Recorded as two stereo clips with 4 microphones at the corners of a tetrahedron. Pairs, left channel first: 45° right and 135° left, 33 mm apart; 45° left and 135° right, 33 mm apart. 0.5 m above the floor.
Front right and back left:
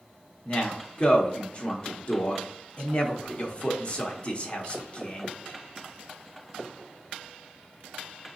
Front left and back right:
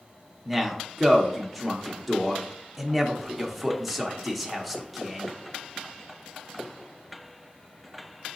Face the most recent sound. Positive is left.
turn(degrees=-45)